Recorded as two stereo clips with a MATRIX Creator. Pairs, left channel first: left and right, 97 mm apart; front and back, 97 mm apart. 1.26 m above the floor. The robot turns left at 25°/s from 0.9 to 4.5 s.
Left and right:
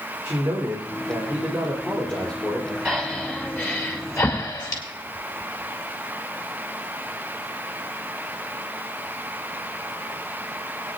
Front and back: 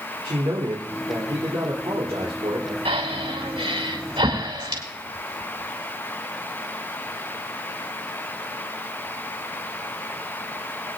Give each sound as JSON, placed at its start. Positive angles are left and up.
{"t": 0.2, "sound": "a man speaking", "azimuth_deg": -160, "distance_m": 3.0}
{"t": 2.9, "sound": "breathing", "azimuth_deg": 180, "distance_m": 3.0}